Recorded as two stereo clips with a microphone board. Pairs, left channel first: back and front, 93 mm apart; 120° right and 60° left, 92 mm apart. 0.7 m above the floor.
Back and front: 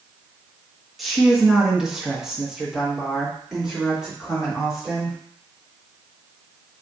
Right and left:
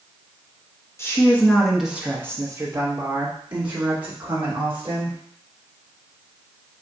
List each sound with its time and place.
1.0 s a woman speaking: 90° right, 1.0 m; by 5.2 s 85° left, 2.5 m